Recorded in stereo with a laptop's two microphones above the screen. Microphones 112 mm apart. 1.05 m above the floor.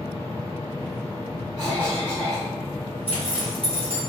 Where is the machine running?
45° right (ahead or behind), 1.5 m.